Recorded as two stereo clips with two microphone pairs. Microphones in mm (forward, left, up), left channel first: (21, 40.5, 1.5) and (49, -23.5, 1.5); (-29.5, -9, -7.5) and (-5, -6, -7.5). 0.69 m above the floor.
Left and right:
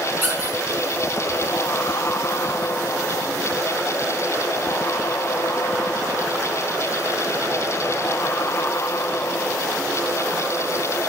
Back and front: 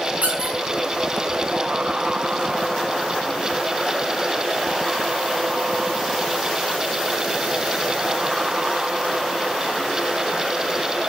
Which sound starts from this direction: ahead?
A squeak, at 0.2 s.